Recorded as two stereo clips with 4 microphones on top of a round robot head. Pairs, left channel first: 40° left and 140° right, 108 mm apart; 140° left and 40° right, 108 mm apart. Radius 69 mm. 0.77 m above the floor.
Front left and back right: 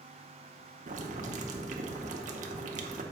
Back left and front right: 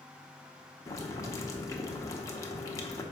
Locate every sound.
0.9 s boiling: 155° right, 0.7 m